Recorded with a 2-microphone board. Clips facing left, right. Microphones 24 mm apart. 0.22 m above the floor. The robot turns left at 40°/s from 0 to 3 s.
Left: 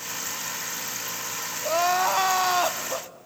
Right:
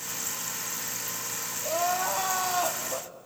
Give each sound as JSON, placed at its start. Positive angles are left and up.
{"t": 1.6, "sound": "crying", "azimuth_deg": 100, "distance_m": 0.5}